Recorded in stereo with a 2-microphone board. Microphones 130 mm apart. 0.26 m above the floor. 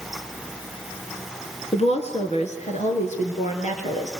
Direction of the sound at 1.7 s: 50° left (ahead or behind).